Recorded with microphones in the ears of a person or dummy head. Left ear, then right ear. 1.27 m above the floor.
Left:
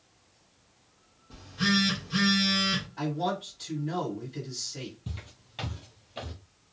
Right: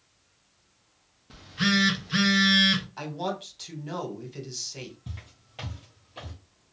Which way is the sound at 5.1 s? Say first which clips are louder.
Left 2 dB; 5° left (ahead or behind).